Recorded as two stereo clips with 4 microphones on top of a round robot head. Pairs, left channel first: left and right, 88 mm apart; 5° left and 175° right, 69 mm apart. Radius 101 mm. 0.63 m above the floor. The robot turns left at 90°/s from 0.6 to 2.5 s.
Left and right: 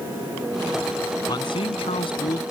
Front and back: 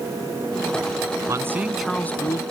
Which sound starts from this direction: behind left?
A man speaking, at 1.3 s.